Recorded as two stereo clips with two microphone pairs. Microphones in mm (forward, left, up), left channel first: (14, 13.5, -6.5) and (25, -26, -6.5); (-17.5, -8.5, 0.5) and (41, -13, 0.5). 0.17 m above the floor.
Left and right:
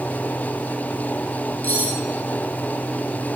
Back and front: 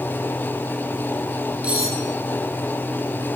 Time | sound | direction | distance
1.6 | cutlery clinking | 60° left | 4 m